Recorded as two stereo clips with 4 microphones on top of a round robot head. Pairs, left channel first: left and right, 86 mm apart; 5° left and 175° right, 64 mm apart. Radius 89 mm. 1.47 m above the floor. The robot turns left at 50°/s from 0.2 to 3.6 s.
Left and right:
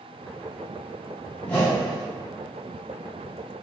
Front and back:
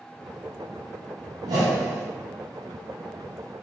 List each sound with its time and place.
1.4 s a whoosh: 165° left, 0.6 m; by 2.1 s 135° left, 0.6 m